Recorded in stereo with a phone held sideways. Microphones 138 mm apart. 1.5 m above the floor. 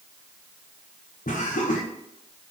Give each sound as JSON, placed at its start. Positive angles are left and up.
{"t": 1.3, "sound": "laughter", "side_deg": 80, "distance_m": 1.3}